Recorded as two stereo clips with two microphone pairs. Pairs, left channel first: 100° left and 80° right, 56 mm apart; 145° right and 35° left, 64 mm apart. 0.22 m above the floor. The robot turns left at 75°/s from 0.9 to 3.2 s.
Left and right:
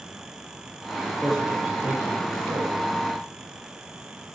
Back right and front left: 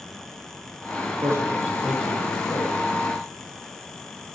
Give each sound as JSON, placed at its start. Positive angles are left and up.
{"t": 1.2, "sound": "a man speaking", "azimuth_deg": 10, "distance_m": 9.0}